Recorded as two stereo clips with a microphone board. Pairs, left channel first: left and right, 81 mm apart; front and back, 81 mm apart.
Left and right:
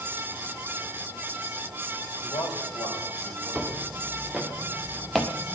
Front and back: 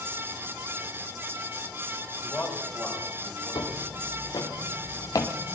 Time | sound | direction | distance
2.2 | a man speaking | 85° left | 6.5 m
3.5 | footsteps | 10° right | 3 m